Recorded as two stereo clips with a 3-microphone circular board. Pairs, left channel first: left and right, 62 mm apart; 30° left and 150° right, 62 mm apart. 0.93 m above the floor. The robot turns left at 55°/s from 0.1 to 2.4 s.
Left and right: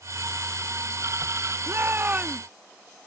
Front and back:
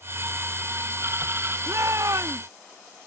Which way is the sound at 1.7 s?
120° right.